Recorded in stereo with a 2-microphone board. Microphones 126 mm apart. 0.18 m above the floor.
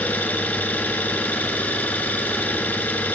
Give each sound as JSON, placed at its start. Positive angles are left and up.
{"t": 0.0, "sound": "an engine running", "side_deg": 15, "distance_m": 0.8}